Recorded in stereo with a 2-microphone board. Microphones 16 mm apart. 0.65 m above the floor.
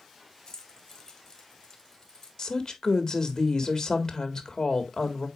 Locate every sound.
0.5 s keys jangling: 15° left (ahead or behind), 2.5 m
2.4 s a woman speaking: 30° left (ahead or behind), 1.7 m